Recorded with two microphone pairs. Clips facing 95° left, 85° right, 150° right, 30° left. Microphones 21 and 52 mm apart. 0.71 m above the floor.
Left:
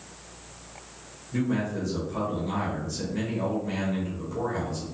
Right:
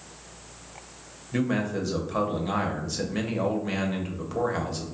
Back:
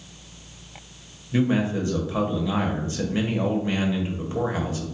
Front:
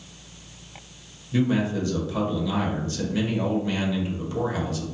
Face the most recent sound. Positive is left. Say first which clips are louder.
# right 1 dB, back 1 dB
turn(degrees=-105)